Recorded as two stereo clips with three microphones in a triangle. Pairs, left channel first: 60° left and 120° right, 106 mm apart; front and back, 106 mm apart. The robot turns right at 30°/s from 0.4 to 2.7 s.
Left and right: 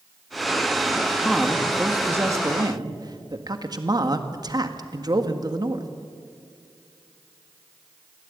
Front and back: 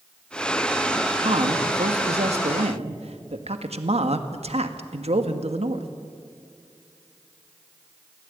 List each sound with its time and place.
1.2 s a man speaking: 145° left, 1.6 m; by 5.9 s 170° right, 1.6 m